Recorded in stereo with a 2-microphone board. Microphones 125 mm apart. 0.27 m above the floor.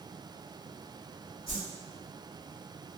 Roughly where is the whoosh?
Left.